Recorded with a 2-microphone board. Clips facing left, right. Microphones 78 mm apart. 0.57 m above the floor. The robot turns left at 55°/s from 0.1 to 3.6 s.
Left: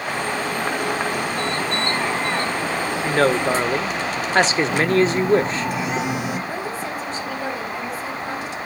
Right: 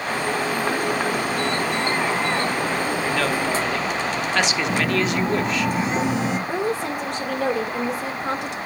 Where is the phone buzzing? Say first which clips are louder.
Left 4 dB; 35° right (ahead or behind), 3 m.